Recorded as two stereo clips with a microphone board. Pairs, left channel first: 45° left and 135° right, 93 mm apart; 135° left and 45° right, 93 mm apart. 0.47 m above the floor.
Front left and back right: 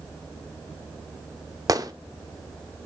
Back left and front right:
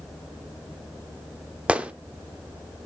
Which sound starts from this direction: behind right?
A gunshot, at 1.7 s.